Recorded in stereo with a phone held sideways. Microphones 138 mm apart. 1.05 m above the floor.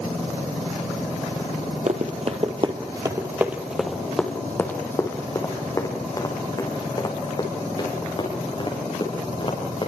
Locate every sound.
1.9 s running footsteps: 60° right (ahead or behind), 1.9 m; by 9.9 s 40° left (ahead or behind), 7.5 m